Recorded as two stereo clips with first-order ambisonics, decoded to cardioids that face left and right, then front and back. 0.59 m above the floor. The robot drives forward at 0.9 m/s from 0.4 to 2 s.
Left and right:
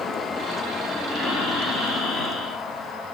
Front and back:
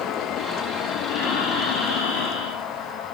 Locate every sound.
1.1 s breathing: 20° left, 8 m